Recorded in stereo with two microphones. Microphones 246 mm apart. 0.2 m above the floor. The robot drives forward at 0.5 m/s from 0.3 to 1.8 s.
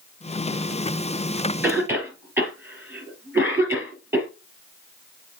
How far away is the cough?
About 3 m.